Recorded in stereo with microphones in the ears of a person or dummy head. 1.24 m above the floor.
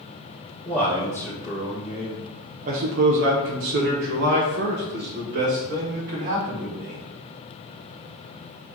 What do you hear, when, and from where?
0.7 s a man speaking: 20° left (ahead or behind), 1.3 m; by 7.0 s 45° right (ahead or behind), 2.5 m